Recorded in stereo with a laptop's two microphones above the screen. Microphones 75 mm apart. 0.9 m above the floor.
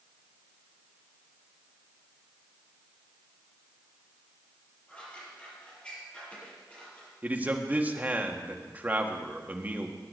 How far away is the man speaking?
About 1.7 m.